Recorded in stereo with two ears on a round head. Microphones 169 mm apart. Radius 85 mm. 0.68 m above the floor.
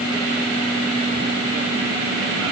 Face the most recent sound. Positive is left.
No sound to turn to.